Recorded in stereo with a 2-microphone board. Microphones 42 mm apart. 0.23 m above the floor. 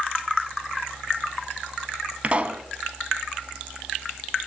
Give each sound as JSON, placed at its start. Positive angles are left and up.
{"t": 2.2, "sound": "a pop", "side_deg": -30, "distance_m": 0.7}